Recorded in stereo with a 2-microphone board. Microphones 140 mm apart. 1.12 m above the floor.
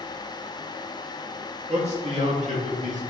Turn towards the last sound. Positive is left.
turn(degrees=-65)  # may be behind; listen again after turning